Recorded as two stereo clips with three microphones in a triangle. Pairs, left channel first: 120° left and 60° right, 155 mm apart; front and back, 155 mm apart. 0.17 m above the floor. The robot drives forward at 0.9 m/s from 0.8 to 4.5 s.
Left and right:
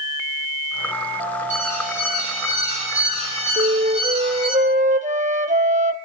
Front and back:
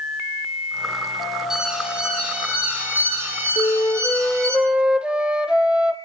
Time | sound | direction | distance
1.5 | an alarm | 95° right | 8 m
3.6 | a flute | 65° right | 1.5 m